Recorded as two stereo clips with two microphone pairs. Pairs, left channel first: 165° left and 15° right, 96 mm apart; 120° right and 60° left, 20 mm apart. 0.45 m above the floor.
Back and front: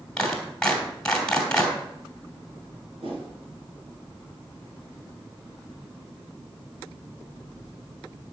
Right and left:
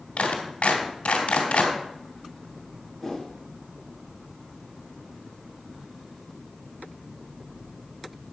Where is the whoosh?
35° right, 3 m.